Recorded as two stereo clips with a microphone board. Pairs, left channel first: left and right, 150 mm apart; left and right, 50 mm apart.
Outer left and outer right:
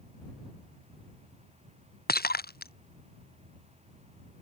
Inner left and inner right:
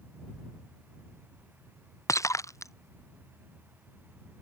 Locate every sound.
2.1 s breaking glass: 85° left